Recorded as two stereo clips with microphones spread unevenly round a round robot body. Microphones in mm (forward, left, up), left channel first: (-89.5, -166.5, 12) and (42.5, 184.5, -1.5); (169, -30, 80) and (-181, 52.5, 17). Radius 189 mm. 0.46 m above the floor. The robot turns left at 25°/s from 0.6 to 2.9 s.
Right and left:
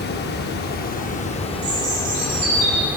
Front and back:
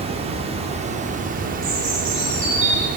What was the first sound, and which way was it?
Running water, 155° right.